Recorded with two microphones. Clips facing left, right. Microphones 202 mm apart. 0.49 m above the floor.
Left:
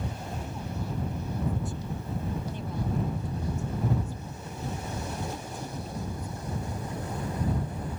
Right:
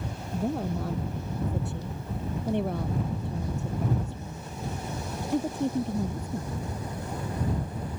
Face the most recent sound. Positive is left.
turn(degrees=-65)  # may be behind; listen again after turning